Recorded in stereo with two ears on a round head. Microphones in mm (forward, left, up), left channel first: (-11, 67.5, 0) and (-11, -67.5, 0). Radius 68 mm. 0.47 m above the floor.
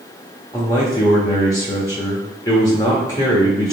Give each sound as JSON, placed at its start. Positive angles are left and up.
{"t": 0.5, "sound": "a man speaking", "side_deg": 25, "distance_m": 0.9}